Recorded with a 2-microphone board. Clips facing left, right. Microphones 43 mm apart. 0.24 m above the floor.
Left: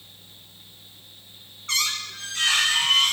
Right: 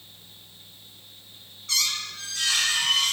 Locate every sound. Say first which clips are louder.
1.7 s a squeak: left 2 dB; 50° left (ahead or behind), 4 m